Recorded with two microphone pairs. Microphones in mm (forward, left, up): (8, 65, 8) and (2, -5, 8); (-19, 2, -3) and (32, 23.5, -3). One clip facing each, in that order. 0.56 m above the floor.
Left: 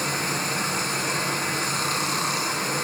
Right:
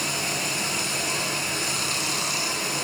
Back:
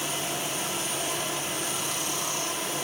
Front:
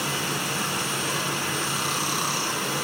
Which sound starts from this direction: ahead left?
Running water, at 0.0 s.